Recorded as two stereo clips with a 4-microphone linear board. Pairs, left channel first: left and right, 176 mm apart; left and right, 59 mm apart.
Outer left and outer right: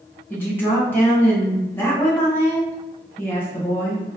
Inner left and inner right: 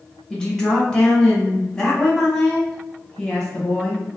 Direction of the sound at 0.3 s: 10° left (ahead or behind).